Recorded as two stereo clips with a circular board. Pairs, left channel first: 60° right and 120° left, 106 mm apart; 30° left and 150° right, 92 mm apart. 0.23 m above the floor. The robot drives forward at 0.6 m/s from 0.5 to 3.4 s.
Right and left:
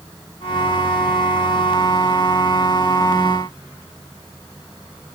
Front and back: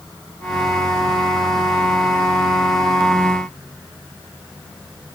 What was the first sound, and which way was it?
Only background noise.